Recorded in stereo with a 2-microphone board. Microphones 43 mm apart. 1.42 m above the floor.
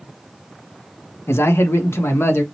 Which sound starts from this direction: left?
A man speaking, at 1.3 s.